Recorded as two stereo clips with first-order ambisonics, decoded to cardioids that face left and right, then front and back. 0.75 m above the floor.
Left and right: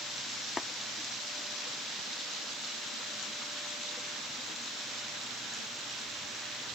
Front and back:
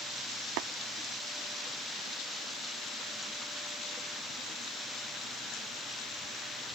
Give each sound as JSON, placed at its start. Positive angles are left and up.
{"t": 0.6, "sound": "tapping", "azimuth_deg": 170}